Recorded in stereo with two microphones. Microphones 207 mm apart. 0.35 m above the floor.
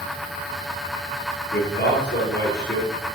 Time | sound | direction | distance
1.5 | a man speaking | 55° left (ahead or behind) | 7 m